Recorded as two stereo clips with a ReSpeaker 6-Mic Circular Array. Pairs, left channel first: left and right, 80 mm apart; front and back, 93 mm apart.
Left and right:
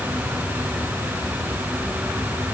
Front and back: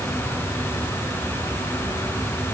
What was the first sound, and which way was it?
Only background noise.